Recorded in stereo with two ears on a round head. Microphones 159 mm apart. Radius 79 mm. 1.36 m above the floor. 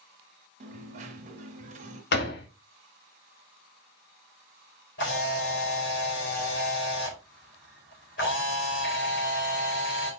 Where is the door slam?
65° left (ahead or behind), 1.6 m.